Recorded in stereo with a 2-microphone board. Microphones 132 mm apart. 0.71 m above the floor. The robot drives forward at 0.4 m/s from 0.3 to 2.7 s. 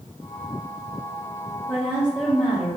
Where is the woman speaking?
15° right (ahead or behind), 0.8 m; by 2.8 s 10° right (ahead or behind), 1.1 m.